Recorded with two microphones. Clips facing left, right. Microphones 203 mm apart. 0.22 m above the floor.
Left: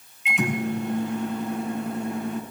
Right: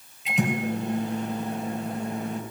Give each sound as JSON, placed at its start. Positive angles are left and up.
{"t": 0.2, "sound": "a microwave", "side_deg": -40, "distance_m": 3.0}